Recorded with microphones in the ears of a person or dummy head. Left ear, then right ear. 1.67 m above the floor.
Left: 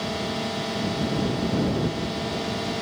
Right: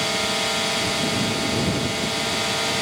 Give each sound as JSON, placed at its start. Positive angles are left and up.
{"t": 0.0, "sound": "a drone", "side_deg": -50}